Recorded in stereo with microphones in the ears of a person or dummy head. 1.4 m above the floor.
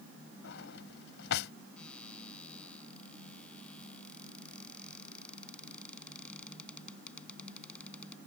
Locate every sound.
0.4 s a drawer: 65° left (ahead or behind)
1.8 s a cupboard door: 5° left (ahead or behind)